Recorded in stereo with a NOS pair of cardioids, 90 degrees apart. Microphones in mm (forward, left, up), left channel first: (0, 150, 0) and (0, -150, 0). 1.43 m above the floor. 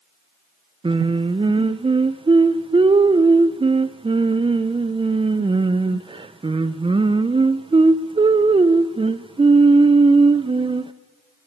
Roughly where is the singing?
Ahead.